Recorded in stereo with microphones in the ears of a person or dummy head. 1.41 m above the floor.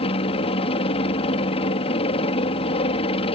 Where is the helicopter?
30° left (ahead or behind).